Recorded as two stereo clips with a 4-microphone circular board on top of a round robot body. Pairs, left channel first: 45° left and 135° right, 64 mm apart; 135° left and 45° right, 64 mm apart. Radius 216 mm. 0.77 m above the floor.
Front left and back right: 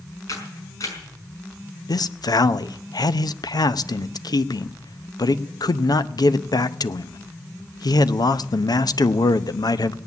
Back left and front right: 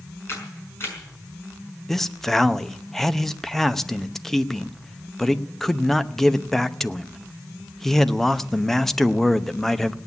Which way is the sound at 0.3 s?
80° left.